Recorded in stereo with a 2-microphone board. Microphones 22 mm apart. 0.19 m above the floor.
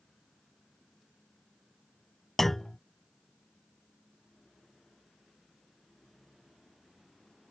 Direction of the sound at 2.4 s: 10° left (ahead or behind).